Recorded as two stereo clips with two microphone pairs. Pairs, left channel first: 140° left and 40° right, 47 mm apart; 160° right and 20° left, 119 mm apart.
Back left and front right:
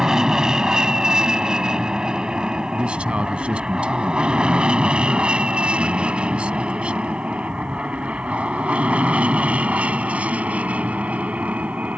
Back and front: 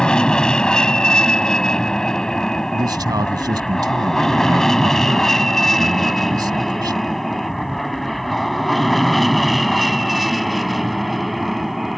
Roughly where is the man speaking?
Ahead.